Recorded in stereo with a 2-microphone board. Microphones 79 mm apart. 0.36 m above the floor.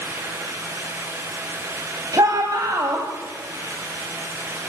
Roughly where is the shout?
Right.